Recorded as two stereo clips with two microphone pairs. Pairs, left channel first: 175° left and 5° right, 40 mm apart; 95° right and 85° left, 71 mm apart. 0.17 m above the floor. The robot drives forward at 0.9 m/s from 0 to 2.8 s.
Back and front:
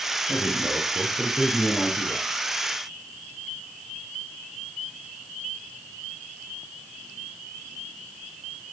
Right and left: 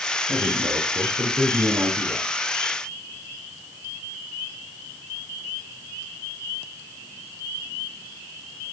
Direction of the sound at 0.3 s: 85° left.